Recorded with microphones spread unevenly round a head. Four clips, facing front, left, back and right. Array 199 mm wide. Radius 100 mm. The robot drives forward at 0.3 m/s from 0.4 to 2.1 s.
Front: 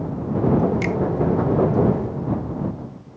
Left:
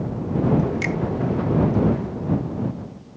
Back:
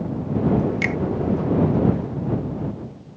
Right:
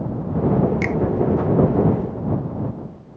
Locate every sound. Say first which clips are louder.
0.8 s a finger snap: right 3 dB, front 2 dB; 120° right; by 1.0 s 125° right